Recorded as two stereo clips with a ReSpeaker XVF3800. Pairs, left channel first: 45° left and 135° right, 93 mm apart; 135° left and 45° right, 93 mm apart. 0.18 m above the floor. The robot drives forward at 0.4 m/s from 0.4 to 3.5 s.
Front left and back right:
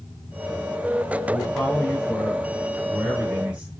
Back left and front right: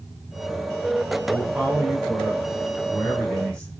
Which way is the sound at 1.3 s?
Straight ahead.